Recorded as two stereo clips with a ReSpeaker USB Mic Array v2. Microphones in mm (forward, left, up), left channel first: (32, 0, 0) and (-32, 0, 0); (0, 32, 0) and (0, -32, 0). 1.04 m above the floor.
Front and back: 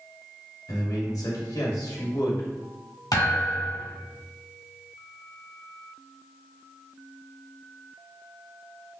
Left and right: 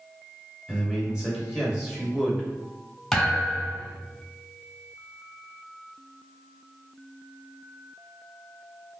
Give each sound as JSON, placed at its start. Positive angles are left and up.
{"t": 0.7, "sound": "a man speaking", "azimuth_deg": -10, "distance_m": 1.8}
{"t": 3.1, "sound": "a thud", "azimuth_deg": 5, "distance_m": 1.3}